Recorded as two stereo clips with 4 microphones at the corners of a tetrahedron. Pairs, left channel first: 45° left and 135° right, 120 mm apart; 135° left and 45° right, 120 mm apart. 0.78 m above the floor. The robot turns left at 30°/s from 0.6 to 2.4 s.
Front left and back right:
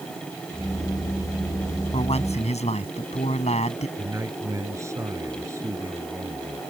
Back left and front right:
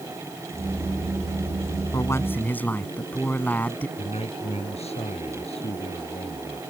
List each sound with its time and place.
1.9 s a man speaking: 75° left; by 3.9 s 60° left
4.0 s a man speaking: 160° left